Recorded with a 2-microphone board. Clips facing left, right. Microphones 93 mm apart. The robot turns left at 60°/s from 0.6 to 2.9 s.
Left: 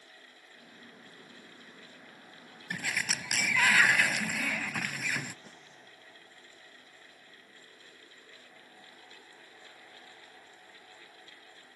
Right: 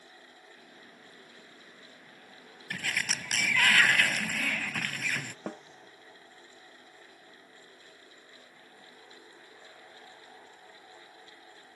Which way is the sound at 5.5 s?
60° right (ahead or behind).